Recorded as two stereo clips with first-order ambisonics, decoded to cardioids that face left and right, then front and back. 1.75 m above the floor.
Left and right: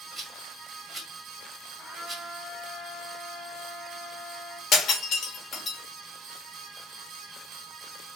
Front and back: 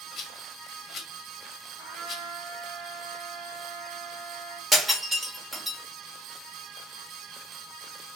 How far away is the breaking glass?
About 1.2 m.